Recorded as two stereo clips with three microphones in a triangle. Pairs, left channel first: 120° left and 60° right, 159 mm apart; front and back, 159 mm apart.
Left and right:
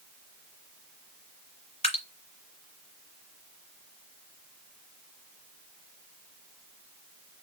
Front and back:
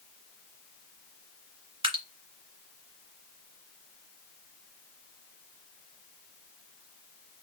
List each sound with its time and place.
1.8 s dripping: 140° left, 1.7 m